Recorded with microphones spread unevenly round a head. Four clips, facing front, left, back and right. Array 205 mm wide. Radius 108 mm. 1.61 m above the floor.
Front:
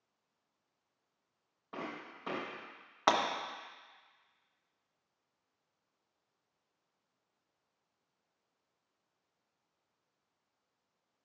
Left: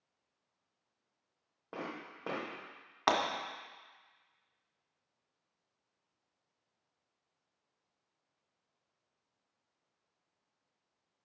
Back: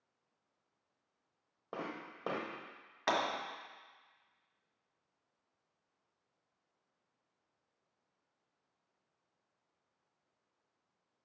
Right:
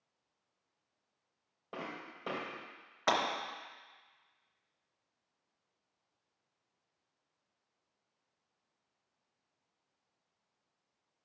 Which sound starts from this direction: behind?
Footsteps, at 1.7 s.